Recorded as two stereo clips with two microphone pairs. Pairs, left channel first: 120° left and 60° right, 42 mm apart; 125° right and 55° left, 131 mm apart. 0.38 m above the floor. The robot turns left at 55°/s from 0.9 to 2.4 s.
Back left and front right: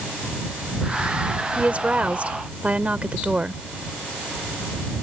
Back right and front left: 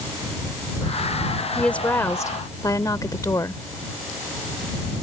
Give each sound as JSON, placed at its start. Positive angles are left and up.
{"t": 1.6, "sound": "a woman speaking", "azimuth_deg": -40}